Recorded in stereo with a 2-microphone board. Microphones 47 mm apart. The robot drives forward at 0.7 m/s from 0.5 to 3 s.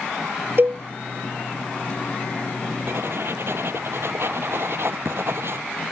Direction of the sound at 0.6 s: 50° right (ahead or behind).